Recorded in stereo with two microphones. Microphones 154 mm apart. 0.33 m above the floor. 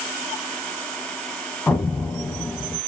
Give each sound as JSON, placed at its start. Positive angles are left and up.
{"t": 1.7, "sound": "an explosion", "side_deg": 10, "distance_m": 0.5}